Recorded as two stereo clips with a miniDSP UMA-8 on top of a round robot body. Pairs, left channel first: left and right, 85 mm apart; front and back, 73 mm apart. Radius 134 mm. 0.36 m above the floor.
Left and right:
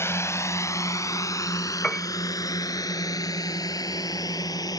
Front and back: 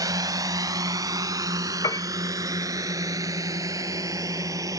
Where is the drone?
150° left; by 4.8 s 135° left.